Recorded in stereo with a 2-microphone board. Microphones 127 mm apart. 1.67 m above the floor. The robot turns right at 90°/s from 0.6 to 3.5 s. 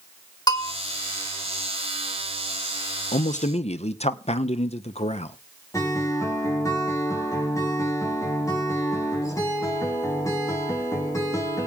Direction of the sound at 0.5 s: 30° left (ahead or behind).